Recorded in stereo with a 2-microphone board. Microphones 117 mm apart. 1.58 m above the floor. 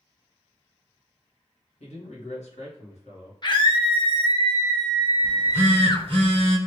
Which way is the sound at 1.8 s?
70° left (ahead or behind).